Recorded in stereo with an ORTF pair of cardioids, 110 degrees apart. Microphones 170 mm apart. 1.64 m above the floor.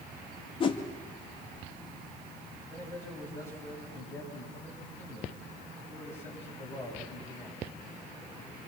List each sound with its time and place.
0.6 s a whoosh: 30° left, 2.5 m
2.7 s a man speaking: 15° left, 10 m